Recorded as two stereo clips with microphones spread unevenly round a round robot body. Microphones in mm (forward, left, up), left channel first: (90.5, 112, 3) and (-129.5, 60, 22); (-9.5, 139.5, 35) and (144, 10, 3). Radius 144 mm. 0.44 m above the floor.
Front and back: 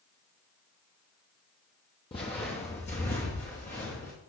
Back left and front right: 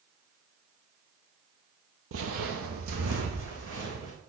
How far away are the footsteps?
About 0.7 m.